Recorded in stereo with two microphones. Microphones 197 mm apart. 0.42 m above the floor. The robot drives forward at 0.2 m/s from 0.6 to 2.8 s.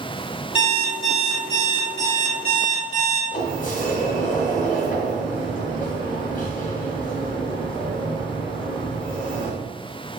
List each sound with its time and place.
0.6 s an alarm clock: 25° left (ahead or behind), 1.2 m; by 3.2 s 40° left (ahead or behind), 0.9 m
3.3 s a sliding door: 45° left (ahead or behind), 0.5 m